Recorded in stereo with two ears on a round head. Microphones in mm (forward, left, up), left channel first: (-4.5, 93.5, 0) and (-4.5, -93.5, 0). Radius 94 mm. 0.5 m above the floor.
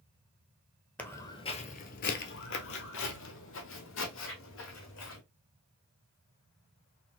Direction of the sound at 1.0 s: 5° left (ahead or behind).